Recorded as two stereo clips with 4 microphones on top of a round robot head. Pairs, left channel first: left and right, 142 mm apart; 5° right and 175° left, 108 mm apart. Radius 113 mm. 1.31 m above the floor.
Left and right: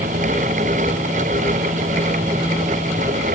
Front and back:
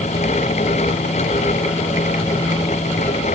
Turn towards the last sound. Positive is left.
No sound to turn to.